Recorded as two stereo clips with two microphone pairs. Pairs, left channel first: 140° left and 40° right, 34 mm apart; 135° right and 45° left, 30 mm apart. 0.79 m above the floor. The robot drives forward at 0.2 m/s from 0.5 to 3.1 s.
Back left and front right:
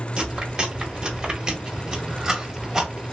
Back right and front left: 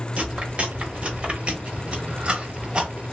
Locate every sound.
0.2 s chewing: 10° left, 1.3 m; by 3.1 s 25° left, 1.0 m